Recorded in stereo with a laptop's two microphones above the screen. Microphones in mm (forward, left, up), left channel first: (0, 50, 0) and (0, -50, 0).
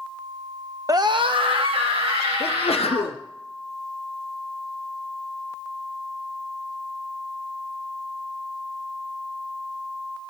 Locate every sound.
0.9 s a scream: 35° right (ahead or behind), 0.8 m; by 3.2 s 75° right (ahead or behind), 4 m
2.4 s a sneeze: 80° left, 0.8 m